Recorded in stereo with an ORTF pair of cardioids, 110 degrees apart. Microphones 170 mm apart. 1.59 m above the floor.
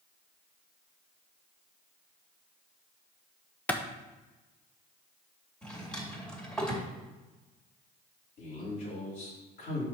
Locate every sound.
3.7 s a clap: 10° left, 0.8 m
5.6 s a drawer: 5° left, 2.5 m
8.4 s a man speaking: 65° left, 3.5 m